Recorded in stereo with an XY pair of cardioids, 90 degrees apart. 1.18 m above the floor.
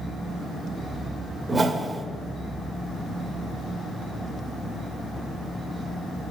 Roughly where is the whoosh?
Ahead right.